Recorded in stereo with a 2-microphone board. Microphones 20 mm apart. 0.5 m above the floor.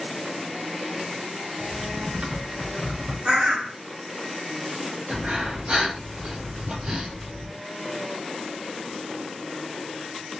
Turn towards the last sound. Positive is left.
turn(degrees=-60)  # may be behind; listen again after turning